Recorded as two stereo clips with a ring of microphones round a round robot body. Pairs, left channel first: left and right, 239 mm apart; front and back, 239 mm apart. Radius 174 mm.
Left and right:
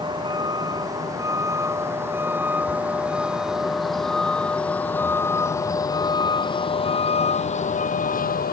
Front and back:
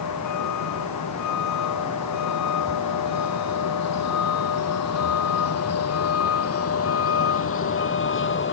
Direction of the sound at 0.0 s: 20° right.